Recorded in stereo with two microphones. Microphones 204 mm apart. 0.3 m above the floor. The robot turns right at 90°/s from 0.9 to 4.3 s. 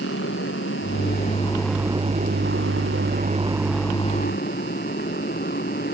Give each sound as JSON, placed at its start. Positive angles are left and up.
{"t": 0.0, "sound": "a motorcycle", "azimuth_deg": 105}